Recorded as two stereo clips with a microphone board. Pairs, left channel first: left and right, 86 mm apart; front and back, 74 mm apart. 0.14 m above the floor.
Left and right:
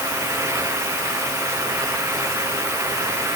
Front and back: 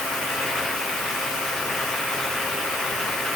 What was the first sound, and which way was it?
Only background noise.